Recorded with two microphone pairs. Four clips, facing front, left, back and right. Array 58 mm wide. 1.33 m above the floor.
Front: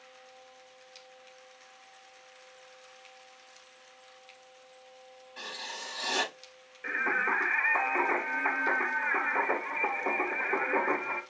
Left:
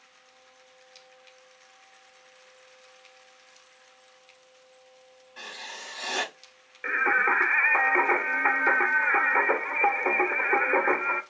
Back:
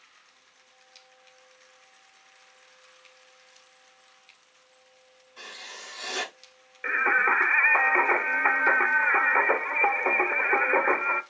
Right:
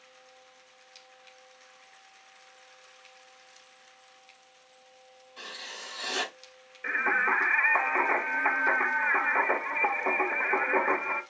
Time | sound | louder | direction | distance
5.4 | writing | left 2 dB, front 2 dB | 60° left | 6 m
6.8 | singing | left 3 dB, back 6 dB | 135° left | 1.5 m